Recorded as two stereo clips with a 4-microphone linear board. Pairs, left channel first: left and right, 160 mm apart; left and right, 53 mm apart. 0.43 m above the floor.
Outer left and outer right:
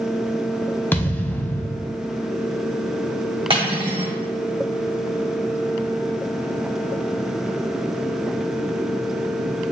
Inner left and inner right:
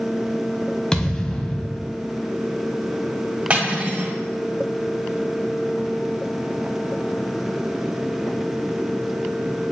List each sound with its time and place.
0.9 s a thud: 10° left (ahead or behind), 0.7 m
3.5 s cutlery clinking: 35° right (ahead or behind), 1.9 m